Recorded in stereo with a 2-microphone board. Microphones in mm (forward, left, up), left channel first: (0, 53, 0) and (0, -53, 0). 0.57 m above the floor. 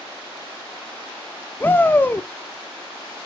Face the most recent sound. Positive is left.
turn(degrees=20)  # may be behind; listen again after turning